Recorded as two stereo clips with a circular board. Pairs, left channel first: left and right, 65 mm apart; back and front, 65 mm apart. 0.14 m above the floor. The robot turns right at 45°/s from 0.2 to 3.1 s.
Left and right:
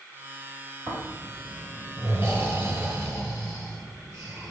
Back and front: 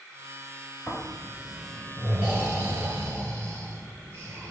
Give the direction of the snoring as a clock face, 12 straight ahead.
4 o'clock.